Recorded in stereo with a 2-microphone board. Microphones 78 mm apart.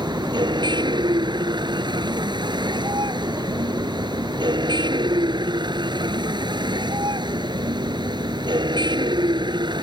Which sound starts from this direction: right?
A vehicle, at 0.0 s.